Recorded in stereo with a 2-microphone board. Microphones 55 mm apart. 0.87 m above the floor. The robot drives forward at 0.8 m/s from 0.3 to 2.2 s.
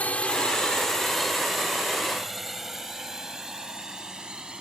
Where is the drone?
25° left (ahead or behind); by 4.6 s 15° right (ahead or behind).